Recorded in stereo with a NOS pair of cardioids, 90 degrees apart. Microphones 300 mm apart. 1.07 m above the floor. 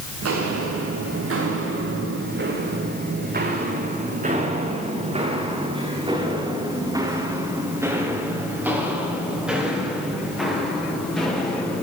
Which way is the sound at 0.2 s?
55° right.